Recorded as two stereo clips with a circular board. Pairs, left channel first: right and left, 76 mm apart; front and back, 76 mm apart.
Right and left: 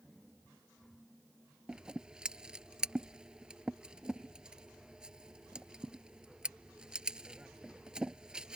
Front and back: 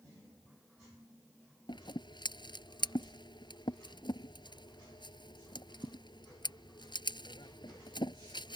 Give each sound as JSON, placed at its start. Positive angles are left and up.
{"t": 1.7, "sound": "scissors", "azimuth_deg": 10}